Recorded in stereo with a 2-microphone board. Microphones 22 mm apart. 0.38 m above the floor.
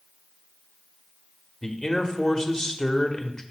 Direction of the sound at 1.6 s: 35° left (ahead or behind).